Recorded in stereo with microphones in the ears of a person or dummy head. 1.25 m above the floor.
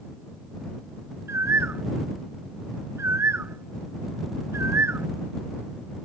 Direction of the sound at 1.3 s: 10° right (ahead or behind).